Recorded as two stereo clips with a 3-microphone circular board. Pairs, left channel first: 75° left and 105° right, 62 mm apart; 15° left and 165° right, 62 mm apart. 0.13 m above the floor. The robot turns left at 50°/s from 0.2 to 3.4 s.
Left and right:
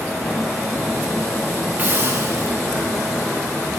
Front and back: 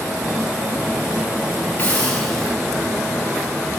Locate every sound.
1.8 s a hiss: 35° right, 3 m; by 2.5 s 75° right, 3 m